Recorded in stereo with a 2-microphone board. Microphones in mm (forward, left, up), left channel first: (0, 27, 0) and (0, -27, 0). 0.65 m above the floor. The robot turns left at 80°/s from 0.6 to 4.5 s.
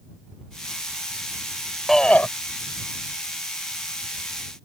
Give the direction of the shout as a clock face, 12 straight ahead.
6 o'clock.